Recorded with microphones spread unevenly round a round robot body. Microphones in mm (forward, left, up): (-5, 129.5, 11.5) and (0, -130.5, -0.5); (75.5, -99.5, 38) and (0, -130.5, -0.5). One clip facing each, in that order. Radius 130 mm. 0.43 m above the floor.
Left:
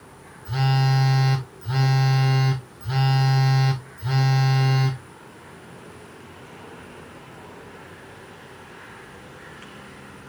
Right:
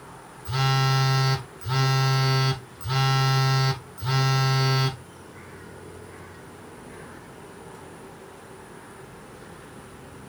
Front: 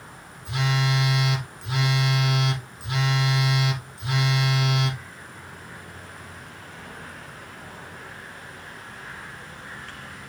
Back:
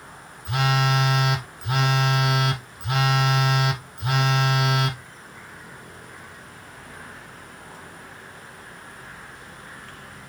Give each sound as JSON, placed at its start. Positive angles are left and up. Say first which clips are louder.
{"t": 0.5, "sound": "a phone buzzing", "louder": "left 3 dB, back 3 dB", "azimuth_deg": -165, "distance_m": 0.8}